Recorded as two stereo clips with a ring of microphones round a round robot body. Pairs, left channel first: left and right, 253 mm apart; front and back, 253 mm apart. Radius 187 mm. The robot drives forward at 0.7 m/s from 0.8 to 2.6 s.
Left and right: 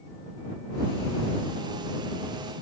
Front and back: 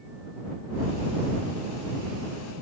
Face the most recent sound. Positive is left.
No sound to turn to.